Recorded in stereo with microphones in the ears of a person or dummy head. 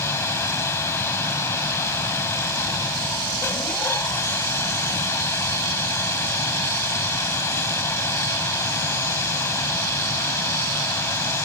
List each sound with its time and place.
0.0 s a machine running: 20° left (ahead or behind)